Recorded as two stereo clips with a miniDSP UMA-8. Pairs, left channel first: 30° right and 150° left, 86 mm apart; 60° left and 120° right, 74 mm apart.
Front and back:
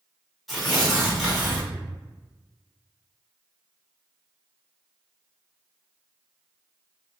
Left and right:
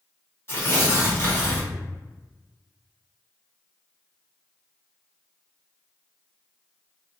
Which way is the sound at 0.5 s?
60° left.